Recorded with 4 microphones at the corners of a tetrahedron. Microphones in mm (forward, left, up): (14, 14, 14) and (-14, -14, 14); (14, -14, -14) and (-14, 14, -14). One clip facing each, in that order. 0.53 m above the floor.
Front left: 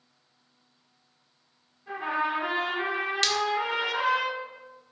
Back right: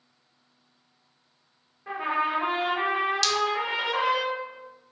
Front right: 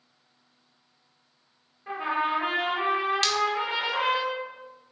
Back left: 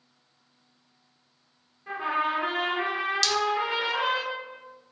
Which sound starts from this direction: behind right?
A trumpet, at 1.9 s.